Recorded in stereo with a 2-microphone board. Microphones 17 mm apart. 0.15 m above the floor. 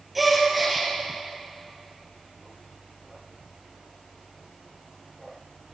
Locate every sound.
0.1 s a gasp: 5° right (ahead or behind), 3.5 m